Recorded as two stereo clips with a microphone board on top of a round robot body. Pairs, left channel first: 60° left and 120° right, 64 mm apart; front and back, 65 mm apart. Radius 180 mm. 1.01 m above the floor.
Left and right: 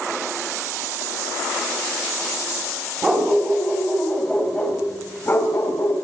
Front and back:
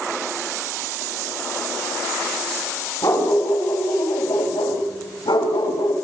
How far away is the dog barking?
About 3.5 m.